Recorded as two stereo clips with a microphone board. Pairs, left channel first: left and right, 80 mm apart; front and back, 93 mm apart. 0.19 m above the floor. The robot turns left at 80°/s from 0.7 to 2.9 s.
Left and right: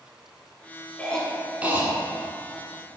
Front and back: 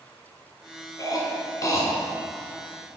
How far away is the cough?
About 1.3 m.